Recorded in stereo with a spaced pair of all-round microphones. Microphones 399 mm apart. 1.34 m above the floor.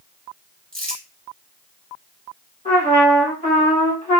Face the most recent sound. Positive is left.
turn(degrees=15)  # may be behind; listen again after turning